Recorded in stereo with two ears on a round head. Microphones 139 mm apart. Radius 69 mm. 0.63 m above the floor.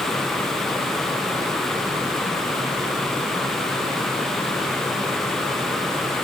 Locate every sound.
Only background noise.